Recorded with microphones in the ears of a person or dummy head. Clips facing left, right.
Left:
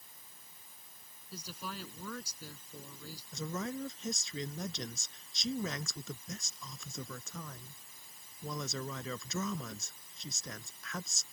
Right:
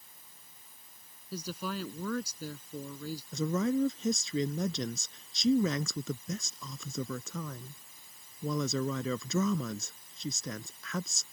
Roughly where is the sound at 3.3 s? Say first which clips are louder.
Right 10 dB; right.